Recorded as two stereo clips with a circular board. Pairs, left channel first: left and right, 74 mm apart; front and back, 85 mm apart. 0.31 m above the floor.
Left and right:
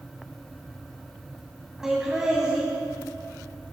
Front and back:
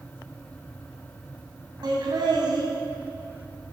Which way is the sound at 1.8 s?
170° right.